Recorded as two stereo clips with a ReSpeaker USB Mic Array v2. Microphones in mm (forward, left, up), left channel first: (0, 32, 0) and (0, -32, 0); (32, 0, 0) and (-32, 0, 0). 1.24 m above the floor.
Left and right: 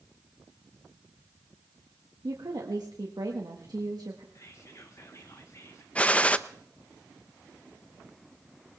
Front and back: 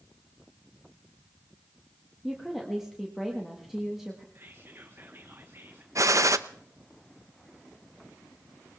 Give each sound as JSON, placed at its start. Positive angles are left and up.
{"t": 2.2, "sound": "a woman speaking", "azimuth_deg": -95, "distance_m": 1.6}
{"t": 4.3, "sound": "whispering", "azimuth_deg": 130, "distance_m": 1.4}
{"t": 6.0, "sound": "a gunshot", "azimuth_deg": 155, "distance_m": 0.6}